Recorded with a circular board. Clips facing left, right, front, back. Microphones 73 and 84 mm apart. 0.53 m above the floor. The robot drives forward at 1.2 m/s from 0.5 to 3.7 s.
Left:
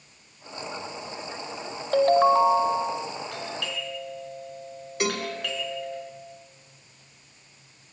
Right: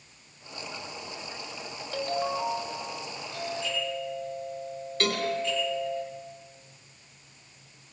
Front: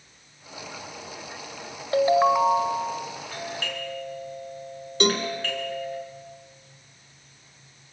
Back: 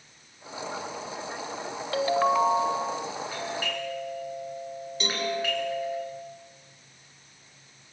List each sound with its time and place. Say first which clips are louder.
1.9 s a ringtone: left 12 dB, front 4 dB; 60° left, 1.5 m; by 3.1 s 115° left, 1.5 m
3.3 s a doorbell: right 1 dB, back 1 dB; 100° left, 9 m
5.0 s a cowbell: even, front 7 dB; 15° left, 2.5 m